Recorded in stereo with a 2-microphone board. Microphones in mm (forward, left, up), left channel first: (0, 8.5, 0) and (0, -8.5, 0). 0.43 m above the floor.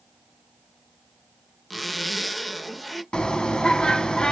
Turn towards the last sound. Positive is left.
turn(degrees=65)  # may be behind; listen again after turning